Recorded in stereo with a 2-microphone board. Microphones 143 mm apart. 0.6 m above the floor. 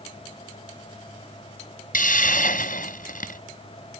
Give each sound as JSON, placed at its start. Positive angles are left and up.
{"t": 1.9, "sound": "a hiss", "side_deg": 75}